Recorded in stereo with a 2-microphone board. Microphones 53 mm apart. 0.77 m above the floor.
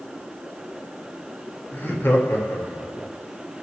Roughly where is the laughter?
Left.